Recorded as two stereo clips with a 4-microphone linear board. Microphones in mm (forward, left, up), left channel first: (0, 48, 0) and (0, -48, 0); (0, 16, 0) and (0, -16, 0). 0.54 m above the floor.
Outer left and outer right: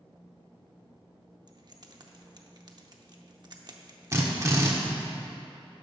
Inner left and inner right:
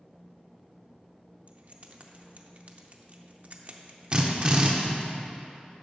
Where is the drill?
35° right (ahead or behind), 1.1 m.